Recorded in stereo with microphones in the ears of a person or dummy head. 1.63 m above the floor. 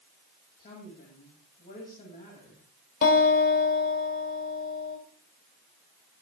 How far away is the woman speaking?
About 8 m.